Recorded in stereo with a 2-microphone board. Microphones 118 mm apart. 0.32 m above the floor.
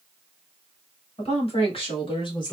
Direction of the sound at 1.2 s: 60° left (ahead or behind).